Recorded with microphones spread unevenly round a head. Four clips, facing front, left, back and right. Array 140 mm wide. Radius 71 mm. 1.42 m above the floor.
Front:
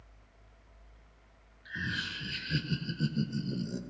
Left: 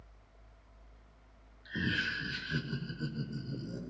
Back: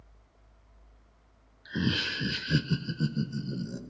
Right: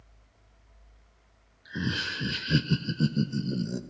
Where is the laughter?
Straight behind, 1.2 m; by 3.8 s 85° right, 2 m.